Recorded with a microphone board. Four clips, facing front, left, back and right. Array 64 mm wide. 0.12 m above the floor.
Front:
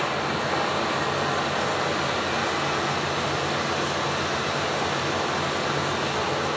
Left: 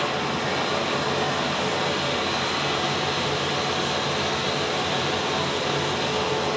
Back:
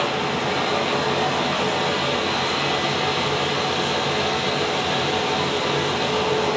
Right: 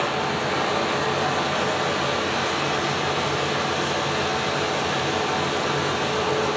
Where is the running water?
170° left, 3 m.